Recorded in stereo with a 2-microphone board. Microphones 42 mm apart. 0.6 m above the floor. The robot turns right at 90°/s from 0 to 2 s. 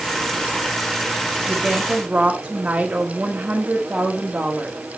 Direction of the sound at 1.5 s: 175° right.